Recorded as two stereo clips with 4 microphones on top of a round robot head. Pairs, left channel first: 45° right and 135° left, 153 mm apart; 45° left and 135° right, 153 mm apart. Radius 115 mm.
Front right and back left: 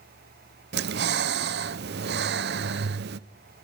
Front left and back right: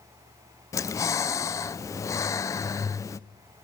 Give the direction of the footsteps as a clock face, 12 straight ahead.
I don't hear footsteps.